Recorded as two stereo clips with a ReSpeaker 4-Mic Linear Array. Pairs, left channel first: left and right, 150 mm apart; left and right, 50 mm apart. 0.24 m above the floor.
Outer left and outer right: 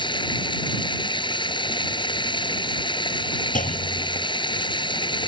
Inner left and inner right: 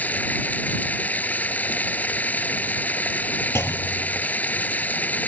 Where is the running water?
35° left (ahead or behind).